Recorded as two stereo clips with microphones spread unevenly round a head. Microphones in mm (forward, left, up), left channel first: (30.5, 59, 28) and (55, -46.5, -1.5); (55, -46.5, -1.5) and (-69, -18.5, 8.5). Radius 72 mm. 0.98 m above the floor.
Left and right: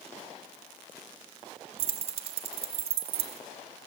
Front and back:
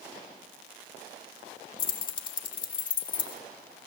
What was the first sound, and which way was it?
Keys jangling, 65° right.